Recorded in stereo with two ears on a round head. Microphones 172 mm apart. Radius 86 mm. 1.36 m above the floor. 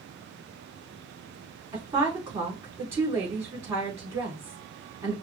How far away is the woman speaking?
About 3.5 m.